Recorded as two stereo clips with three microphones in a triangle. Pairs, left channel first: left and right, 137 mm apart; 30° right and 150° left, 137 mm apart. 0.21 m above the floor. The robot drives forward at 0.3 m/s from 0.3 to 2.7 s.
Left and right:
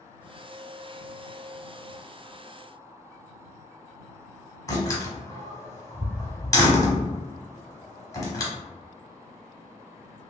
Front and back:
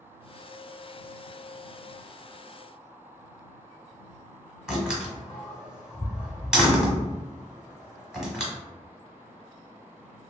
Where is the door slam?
70° left, 1.2 m.